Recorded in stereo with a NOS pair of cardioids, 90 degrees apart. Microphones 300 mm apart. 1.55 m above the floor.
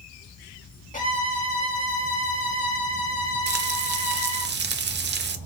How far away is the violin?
About 1.6 m.